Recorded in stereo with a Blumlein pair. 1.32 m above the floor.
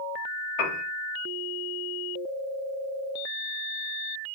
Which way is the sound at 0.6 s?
40° left.